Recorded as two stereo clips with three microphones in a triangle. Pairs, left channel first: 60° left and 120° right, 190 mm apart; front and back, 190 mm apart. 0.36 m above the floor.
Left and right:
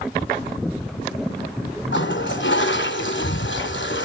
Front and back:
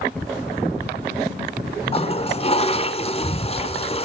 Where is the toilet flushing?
60° left, 1.3 m.